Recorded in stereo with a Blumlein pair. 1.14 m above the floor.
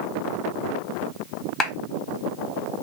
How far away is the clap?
About 0.8 m.